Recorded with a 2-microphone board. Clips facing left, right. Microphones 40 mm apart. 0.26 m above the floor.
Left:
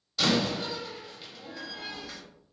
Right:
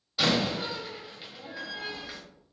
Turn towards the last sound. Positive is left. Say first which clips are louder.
# even
turn(degrees=-15)  # may be behind; listen again after turning